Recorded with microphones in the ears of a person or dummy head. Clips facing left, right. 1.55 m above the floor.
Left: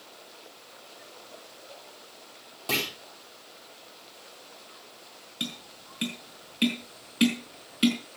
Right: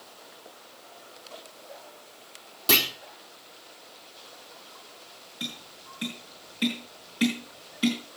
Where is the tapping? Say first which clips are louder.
Left 2 dB; 35° left (ahead or behind), 5 m.